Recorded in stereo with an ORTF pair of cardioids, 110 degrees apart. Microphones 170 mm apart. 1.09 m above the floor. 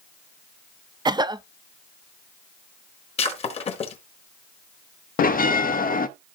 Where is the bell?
55° left, 0.9 m.